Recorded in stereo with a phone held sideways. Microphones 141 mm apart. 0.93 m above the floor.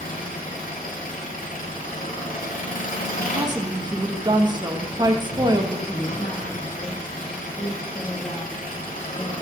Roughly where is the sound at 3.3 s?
Right.